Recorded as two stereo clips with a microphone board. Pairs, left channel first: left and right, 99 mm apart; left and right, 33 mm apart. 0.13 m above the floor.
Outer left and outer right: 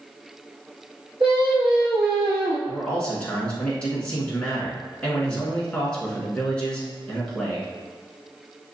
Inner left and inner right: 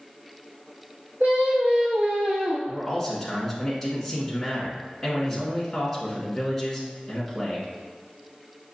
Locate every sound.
1.2 s singing: 65° right (ahead or behind), 1.9 m
2.7 s a man speaking: 10° left (ahead or behind), 1.5 m